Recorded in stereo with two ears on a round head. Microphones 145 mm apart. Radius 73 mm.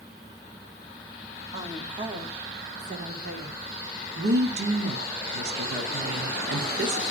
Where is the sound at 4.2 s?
75° right (ahead or behind), 1.5 m.